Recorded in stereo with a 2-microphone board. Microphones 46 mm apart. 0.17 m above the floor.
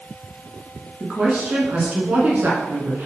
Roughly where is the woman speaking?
Right.